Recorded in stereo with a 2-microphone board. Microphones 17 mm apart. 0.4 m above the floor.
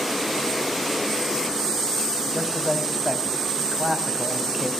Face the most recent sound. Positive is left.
turn(degrees=-10)  # may be behind; listen again after turning